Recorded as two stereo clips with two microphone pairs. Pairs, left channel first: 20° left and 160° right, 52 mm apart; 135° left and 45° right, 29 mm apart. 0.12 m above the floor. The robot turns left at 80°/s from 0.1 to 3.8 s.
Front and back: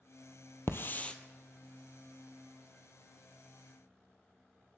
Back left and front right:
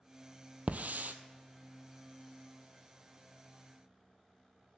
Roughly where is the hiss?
Ahead.